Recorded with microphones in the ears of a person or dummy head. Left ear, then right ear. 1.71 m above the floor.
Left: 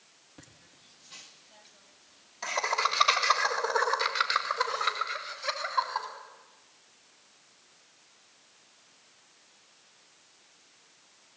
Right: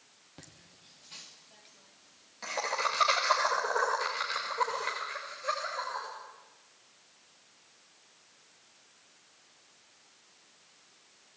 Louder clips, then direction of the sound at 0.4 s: Right 1 dB; 20° right (ahead or behind).